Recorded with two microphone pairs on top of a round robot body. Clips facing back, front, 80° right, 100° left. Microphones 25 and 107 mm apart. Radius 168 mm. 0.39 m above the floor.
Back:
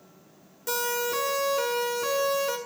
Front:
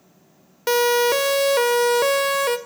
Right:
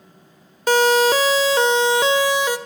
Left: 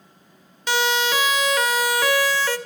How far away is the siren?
About 2 m.